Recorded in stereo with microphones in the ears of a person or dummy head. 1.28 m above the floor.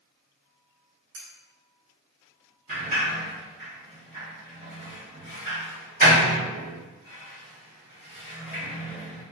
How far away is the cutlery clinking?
About 1.5 m.